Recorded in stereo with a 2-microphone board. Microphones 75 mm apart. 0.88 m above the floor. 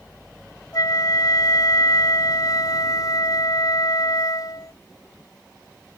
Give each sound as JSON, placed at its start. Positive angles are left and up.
{"t": 0.7, "sound": "a flute", "side_deg": 60}